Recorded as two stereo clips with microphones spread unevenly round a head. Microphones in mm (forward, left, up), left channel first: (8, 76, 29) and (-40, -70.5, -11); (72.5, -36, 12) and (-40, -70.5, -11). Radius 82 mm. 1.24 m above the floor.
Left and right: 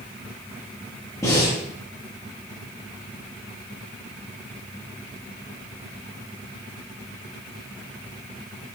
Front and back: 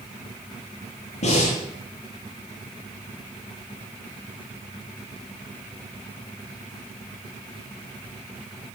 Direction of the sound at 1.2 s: Straight ahead.